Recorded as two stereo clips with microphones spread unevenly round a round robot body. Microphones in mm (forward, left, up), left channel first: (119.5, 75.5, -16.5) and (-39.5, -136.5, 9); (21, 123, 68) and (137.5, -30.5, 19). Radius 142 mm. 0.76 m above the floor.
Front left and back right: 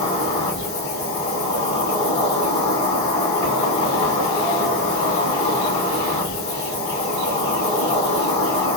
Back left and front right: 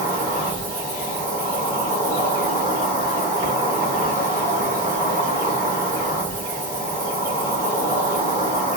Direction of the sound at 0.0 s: 30° left.